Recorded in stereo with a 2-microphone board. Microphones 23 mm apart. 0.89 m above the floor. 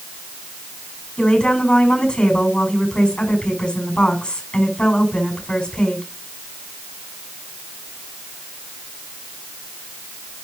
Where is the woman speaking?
40° left (ahead or behind), 5.5 m.